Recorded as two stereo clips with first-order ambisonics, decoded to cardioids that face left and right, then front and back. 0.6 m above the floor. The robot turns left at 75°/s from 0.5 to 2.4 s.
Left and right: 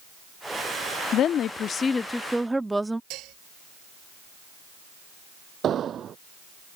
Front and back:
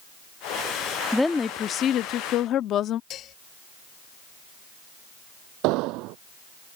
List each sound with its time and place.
1.1 s a woman speaking: 85° left; by 3.0 s 10° right
3.1 s dishes clattering: 55° right
5.6 s an explosion: 150° right